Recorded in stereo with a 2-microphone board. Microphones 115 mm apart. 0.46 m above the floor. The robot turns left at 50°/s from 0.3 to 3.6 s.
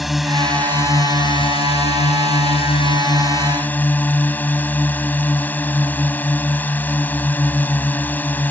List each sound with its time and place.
0.0 s a drone: straight behind; by 8.5 s 15° left